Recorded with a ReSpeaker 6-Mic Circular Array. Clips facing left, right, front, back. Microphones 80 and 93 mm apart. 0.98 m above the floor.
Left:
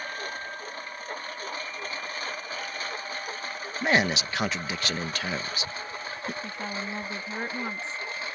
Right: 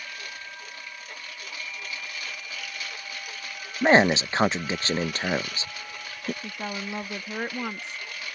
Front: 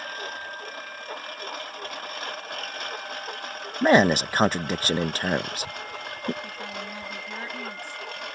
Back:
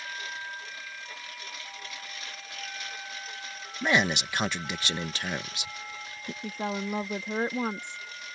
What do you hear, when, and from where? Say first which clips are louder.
0.0 s a lawn mower: left 5 dB, front 4 dB; 40° left; by 8.4 s 30° left
3.8 s a man speaking: right 6 dB, front 8 dB; 35° right
6.4 s a woman speaking: even, back 4 dB; 160° right